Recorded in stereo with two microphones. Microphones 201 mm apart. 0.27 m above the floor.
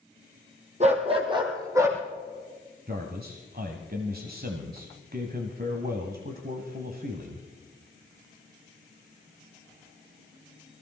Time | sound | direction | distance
0.8 | a dog barking | 35° right (ahead or behind) | 2.5 m
2.9 | a man speaking | 50° right (ahead or behind) | 1.5 m